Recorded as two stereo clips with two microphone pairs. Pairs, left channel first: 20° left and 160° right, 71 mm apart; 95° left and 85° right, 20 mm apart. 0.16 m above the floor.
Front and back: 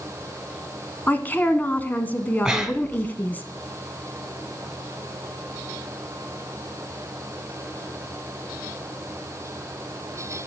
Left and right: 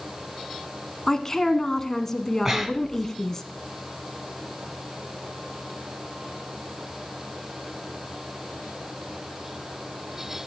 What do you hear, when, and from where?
1.1 s a woman speaking: 55° left, 1.1 m
2.5 s breathing: 105° right, 0.9 m